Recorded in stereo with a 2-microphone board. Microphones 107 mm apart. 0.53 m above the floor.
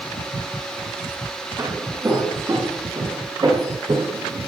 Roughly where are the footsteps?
Right.